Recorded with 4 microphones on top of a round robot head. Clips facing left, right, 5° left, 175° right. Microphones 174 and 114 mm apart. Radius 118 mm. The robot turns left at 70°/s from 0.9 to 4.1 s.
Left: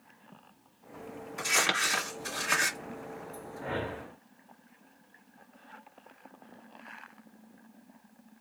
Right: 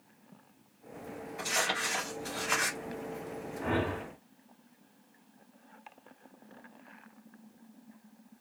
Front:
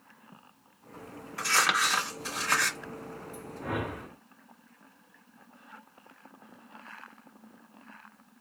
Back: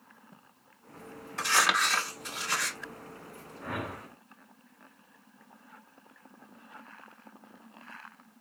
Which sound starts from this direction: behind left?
Crumpling, at 1.4 s.